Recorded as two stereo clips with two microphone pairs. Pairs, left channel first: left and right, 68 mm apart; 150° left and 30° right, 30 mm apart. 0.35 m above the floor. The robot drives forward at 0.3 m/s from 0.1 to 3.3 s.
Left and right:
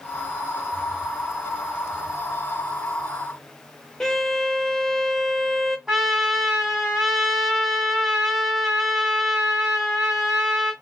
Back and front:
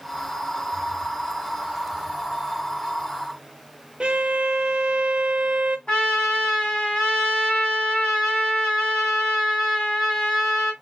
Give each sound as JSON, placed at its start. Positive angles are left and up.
{"t": 4.0, "sound": "a violin", "azimuth_deg": 5, "distance_m": 0.5}
{"t": 5.9, "sound": "a trumpet", "azimuth_deg": -170, "distance_m": 2.0}